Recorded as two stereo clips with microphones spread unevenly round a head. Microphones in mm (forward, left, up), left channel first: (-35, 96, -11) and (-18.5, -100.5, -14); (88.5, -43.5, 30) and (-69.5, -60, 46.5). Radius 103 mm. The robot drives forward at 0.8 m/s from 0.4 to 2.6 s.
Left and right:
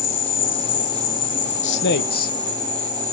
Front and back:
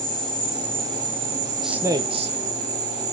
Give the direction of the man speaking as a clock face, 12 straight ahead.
9 o'clock.